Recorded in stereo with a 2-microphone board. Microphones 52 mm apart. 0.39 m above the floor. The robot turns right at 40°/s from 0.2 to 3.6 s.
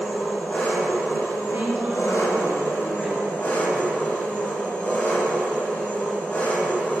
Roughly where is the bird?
No bird in this recording.